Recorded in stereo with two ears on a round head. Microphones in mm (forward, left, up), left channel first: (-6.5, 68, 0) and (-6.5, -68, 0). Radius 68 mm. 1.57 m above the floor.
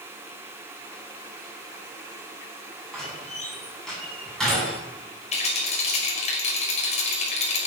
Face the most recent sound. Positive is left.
turn(degrees=45)  # may be behind; listen again after turning